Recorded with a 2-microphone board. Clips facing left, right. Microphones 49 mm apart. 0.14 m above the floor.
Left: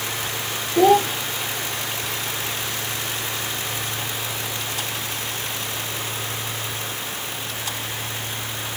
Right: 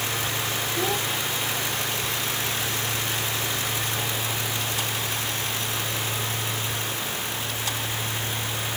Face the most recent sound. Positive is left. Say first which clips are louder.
# left 14 dB
turn(degrees=65)  # may be behind; listen again after turning